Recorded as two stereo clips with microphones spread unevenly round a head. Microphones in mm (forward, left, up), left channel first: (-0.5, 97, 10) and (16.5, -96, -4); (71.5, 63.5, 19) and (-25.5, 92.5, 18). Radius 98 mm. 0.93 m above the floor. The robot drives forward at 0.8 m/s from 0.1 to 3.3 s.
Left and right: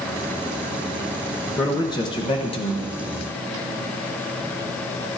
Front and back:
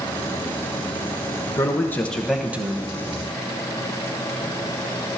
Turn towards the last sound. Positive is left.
turn(degrees=155)